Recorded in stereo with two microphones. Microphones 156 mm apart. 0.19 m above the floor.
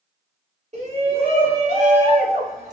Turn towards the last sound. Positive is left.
turn(degrees=-45)  # may be behind; listen again after turning